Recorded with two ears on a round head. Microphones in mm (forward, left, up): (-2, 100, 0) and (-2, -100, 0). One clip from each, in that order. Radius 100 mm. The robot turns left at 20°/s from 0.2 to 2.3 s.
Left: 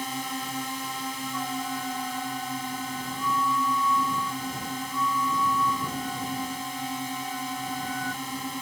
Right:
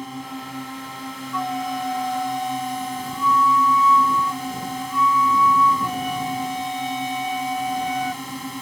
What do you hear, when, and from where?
0.0 s a drone: 55° left; by 8.6 s 10° left
1.3 s a flute: 65° right (ahead or behind); by 8.2 s 85° right